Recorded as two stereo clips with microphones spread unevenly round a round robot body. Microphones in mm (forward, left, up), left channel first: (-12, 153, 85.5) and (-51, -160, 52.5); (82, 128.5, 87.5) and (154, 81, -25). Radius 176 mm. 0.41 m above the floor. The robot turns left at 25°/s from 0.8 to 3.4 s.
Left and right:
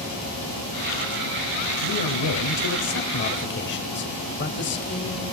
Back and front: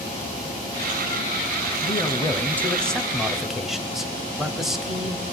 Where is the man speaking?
65° left, 2 m; by 5.2 s 25° left, 2 m.